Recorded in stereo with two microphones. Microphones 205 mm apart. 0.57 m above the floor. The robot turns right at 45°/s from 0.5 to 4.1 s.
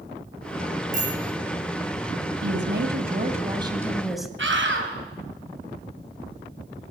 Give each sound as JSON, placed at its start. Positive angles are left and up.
{"t": 0.9, "sound": "a bicycle bell", "side_deg": -40, "distance_m": 9.0}
{"t": 2.4, "sound": "a woman speaking", "azimuth_deg": -75, "distance_m": 3.0}
{"t": 4.4, "sound": "a scream", "side_deg": -75, "distance_m": 4.0}